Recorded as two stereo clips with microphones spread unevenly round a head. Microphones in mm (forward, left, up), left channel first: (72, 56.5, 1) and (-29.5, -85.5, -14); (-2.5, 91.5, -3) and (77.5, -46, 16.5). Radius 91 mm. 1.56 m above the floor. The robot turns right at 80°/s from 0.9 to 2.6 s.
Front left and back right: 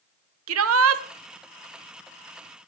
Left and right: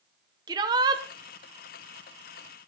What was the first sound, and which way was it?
A shout, 130° right.